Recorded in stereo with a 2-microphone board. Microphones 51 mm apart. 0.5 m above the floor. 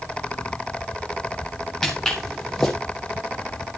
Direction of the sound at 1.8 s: 10° left (ahead or behind).